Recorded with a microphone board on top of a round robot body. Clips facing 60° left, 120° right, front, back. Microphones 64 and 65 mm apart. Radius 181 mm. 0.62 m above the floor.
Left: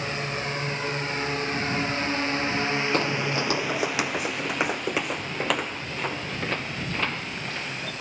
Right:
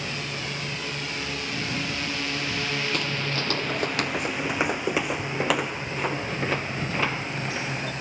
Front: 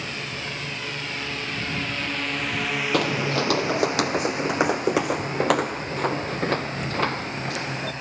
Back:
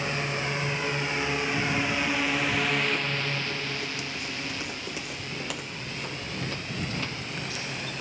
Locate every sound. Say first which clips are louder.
0.0 s a drone: left 3 dB, back 3 dB; 115° left; by 8.0 s 55° right
2.9 s footsteps: left 3 dB, front 7 dB; straight ahead; by 7.9 s 40° right